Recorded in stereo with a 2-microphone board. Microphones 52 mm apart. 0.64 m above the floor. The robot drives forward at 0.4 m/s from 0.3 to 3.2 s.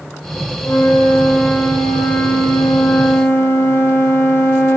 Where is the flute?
55° left (ahead or behind), 9.5 m; by 4.8 s 60° left (ahead or behind), 9 m.